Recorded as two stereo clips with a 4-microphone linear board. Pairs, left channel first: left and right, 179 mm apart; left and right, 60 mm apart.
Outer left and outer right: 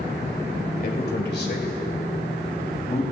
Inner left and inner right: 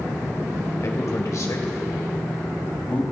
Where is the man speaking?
60° left (ahead or behind), 2 m; by 3.0 s 35° left (ahead or behind), 3 m.